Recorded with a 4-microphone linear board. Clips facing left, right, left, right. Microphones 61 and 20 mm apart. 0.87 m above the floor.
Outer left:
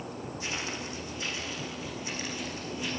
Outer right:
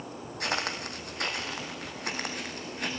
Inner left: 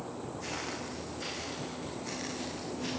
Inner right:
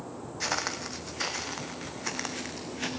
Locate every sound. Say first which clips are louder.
0.4 s footsteps: outer right 6 dB, inner right 9 dB; 65° right (ahead or behind), 2.5 m; by 2.9 s 60° right (ahead or behind), 3.5 m